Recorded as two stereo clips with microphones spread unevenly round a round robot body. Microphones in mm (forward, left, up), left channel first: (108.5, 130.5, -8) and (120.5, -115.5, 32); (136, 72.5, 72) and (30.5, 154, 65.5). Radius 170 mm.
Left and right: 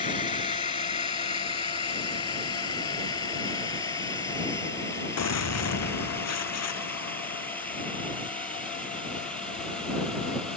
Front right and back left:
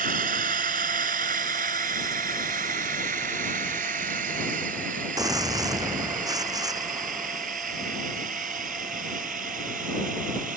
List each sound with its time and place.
0.0 s a drone: 165° left; by 10.6 s straight behind
5.2 s a gunshot: 80° left